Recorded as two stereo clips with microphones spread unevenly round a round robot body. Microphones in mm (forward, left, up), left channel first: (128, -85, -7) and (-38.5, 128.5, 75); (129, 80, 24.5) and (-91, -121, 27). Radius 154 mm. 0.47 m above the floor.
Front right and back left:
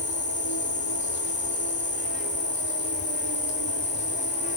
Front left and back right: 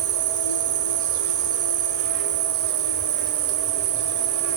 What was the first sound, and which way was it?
An insect, 115° right.